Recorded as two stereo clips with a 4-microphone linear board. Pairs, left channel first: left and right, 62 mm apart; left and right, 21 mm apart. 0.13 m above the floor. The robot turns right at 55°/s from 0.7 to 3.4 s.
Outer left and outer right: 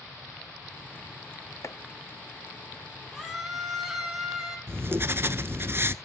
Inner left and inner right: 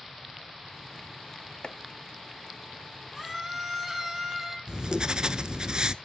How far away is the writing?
About 0.7 m.